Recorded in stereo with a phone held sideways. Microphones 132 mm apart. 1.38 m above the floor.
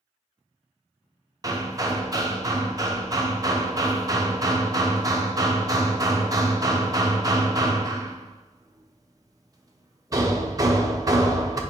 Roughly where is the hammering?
Right.